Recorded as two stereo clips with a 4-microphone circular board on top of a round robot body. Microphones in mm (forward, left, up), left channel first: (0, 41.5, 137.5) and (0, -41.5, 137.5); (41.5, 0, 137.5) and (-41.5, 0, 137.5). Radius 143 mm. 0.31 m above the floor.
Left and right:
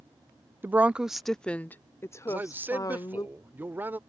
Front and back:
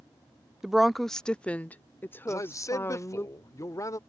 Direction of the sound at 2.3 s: 30° right.